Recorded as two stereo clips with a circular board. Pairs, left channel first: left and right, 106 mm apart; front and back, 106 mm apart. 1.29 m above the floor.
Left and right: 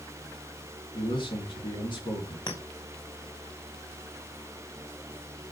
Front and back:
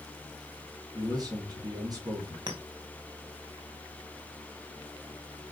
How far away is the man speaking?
About 3.5 m.